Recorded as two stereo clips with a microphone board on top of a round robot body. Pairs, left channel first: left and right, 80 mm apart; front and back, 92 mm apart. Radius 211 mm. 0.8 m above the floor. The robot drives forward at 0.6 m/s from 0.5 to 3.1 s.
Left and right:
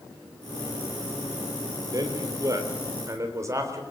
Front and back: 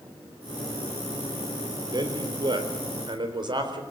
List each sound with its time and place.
1.9 s a man speaking: 135° right, 3.5 m; by 3.8 s 145° right, 4 m